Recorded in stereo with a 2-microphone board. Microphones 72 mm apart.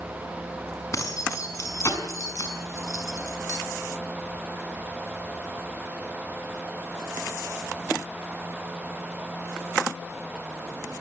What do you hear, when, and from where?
0.9 s keys jangling: 45° left (ahead or behind), 5.5 m